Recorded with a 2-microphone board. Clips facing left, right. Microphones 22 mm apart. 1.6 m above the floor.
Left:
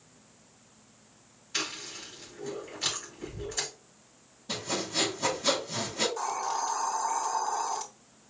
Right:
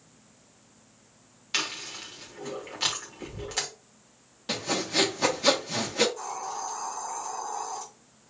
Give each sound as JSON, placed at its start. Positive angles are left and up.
{"t": 1.5, "sound": "chewing", "side_deg": -65, "distance_m": 2.5}
{"t": 4.5, "sound": "sawing", "side_deg": -70, "distance_m": 1.8}
{"t": 6.2, "sound": "a hiss", "side_deg": 45, "distance_m": 1.6}